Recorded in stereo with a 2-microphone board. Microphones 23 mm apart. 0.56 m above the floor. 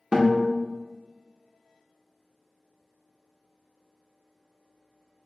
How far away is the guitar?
About 0.7 m.